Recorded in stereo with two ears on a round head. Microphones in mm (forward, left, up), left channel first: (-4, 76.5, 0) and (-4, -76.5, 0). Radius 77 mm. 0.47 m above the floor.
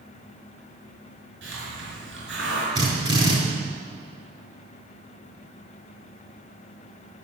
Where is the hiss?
70° right (ahead or behind), 6 m.